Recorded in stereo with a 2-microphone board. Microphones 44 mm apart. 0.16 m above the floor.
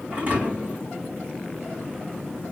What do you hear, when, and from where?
0.1 s a thud: 35° right (ahead or behind), 4.5 m